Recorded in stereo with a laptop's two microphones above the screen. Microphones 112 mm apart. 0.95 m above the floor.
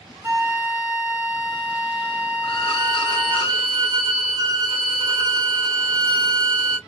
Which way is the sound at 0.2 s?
20° right (ahead or behind).